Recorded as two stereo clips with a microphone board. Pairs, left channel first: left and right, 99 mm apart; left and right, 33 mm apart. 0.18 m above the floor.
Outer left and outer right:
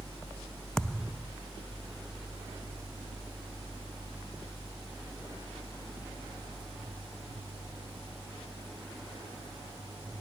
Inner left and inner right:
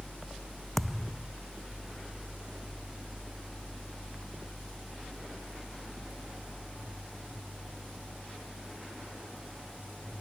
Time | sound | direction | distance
0.8 | a thud | 5° left (ahead or behind) | ?